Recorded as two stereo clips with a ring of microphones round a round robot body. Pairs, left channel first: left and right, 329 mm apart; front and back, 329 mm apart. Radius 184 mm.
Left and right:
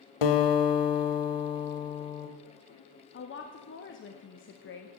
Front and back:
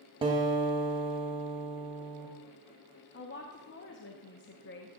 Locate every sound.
0.2 s a guitar: 105° left, 1.0 m
3.1 s a woman speaking: 45° left, 0.8 m